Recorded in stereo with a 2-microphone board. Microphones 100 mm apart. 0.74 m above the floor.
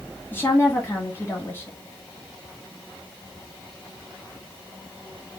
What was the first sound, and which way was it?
A woman speaking, 20° left (ahead or behind).